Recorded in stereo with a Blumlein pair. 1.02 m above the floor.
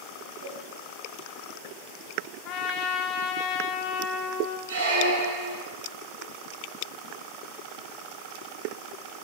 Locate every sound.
0.4 s a whoosh: 70° right, 4 m
2.5 s a trumpet: 35° left, 0.8 m
4.7 s a squeak: 70° right, 4.5 m